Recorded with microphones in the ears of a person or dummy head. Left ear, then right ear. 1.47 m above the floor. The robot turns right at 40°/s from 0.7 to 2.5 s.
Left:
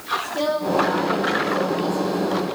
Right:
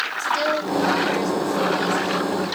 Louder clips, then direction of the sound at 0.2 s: Right 2 dB; 80° right.